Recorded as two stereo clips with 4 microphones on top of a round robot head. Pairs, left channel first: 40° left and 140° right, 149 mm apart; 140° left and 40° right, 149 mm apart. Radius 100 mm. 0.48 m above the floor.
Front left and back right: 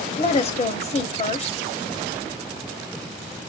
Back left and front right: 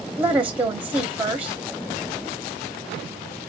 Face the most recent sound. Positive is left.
turn(degrees=35)